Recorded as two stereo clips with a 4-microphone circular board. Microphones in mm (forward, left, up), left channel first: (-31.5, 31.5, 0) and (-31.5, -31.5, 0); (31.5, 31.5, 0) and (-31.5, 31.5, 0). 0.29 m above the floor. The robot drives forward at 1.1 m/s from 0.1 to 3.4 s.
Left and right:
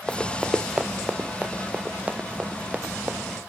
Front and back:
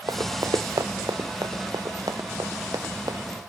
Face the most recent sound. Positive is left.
turn(degrees=-155)